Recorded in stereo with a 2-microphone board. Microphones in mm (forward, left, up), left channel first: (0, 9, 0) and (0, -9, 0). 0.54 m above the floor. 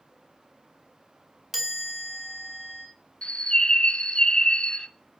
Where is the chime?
20° right (ahead or behind), 3.5 m.